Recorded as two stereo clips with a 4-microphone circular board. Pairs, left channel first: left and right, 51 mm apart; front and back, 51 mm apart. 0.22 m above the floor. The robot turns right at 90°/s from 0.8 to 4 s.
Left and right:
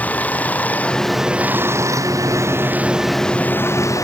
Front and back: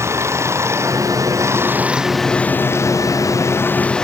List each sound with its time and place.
0.0 s running water: 150° left; by 4.0 s 75° left